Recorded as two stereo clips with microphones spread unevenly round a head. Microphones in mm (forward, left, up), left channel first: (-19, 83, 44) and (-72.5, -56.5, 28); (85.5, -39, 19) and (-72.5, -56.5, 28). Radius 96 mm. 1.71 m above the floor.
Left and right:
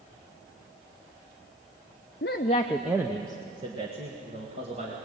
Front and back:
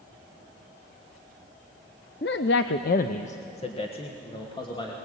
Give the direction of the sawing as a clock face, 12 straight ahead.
I don't hear sawing.